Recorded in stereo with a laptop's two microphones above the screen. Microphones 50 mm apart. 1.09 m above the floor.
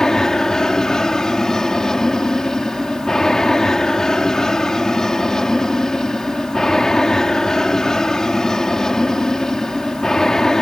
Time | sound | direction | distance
0.0 | an aircraft | 10° left (ahead or behind) | ?